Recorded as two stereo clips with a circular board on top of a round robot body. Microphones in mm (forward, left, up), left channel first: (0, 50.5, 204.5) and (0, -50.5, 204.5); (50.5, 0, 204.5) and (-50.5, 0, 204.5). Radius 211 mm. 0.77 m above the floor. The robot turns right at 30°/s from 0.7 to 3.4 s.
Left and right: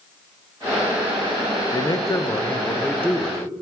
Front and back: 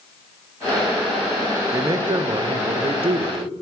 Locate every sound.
1.7 s a man speaking: 125° left, 0.5 m; by 3.5 s straight behind, 0.5 m